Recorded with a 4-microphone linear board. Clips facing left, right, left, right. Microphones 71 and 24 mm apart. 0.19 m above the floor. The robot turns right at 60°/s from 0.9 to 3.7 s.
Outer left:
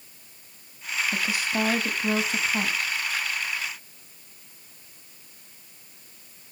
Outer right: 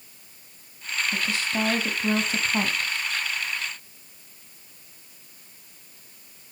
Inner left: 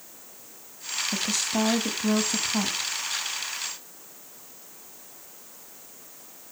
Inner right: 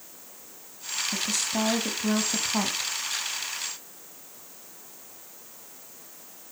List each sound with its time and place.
1.1 s a woman speaking: 20° left (ahead or behind), 1.2 m; by 2.9 s 20° right (ahead or behind), 1.2 m